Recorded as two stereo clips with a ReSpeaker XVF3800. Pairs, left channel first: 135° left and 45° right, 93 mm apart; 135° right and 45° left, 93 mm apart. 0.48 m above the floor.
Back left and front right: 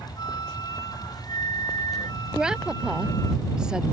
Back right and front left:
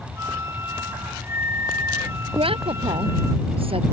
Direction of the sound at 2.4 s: 35° left.